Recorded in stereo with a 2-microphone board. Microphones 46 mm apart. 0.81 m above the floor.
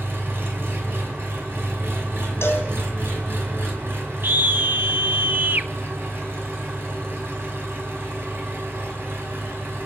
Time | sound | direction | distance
0.0 | an engine running | 55° right (ahead or behind) | 5 m
2.4 | a cowbell | 60° left (ahead or behind) | 5 m
4.2 | a scream | 45° right (ahead or behind) | 1.0 m